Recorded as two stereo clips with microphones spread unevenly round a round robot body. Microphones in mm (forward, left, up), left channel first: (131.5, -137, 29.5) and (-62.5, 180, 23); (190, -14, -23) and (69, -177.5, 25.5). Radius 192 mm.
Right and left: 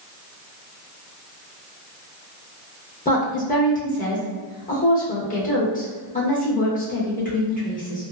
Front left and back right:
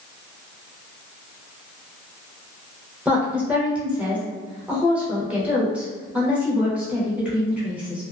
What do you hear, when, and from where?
3.0 s a woman speaking: 20° right, 0.9 m